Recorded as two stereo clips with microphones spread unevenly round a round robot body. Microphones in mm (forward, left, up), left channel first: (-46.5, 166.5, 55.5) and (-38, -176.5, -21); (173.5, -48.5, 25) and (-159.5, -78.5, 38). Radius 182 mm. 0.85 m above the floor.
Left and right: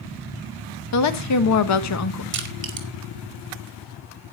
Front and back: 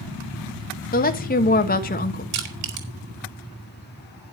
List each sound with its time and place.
0.9 s a woman speaking: 55° left, 1.2 m
2.3 s crushing: 140° right, 3.5 m